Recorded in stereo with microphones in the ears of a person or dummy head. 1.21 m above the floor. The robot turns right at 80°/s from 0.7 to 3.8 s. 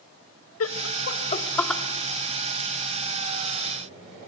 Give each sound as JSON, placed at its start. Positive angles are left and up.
{"t": 0.6, "sound": "laughter", "side_deg": 75, "distance_m": 1.7}